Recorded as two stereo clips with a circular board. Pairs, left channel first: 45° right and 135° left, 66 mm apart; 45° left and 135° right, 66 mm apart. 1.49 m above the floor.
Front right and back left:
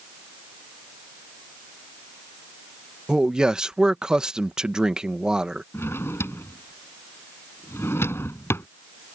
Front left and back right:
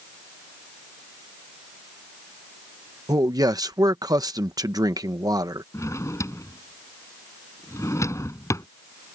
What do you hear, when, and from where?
3.1 s a man speaking: 145° right
5.7 s a drawer: 5° left